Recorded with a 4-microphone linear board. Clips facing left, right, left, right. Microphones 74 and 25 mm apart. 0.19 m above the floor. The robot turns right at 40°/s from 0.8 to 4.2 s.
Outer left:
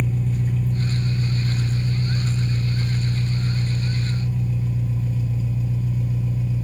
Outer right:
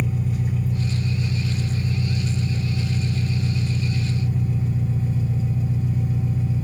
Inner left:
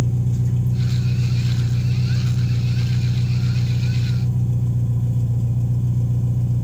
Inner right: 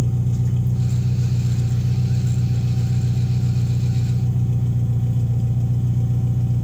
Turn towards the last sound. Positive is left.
turn(degrees=-35)